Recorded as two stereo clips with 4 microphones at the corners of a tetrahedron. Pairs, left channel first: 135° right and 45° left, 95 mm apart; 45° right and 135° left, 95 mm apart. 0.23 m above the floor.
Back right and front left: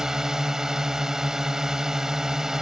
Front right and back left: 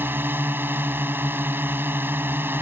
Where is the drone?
120° left.